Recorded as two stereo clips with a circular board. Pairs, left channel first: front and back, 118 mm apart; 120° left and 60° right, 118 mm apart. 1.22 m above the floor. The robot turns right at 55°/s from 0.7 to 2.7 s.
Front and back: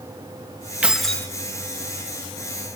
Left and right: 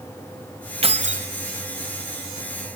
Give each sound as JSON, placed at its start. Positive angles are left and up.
{"t": 0.8, "sound": "keys jangling", "azimuth_deg": -100, "distance_m": 1.0}